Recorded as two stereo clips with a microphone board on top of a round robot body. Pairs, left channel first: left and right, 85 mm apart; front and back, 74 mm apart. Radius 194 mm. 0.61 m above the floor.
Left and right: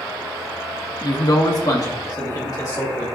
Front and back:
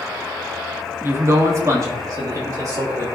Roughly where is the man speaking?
Behind left.